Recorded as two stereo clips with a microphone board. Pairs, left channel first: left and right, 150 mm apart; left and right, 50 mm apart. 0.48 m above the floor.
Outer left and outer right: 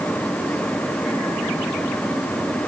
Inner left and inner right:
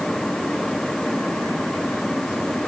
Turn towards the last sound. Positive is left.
No sound to turn to.